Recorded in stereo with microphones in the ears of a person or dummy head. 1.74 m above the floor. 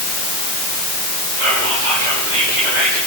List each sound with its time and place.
1.4 s whispering: 55° right (ahead or behind), 8.5 m